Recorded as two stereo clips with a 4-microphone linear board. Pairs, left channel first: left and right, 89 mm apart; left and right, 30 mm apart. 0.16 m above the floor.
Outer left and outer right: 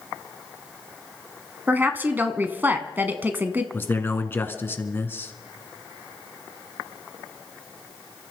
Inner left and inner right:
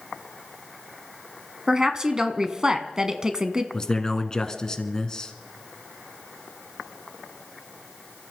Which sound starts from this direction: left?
A man speaking, at 3.7 s.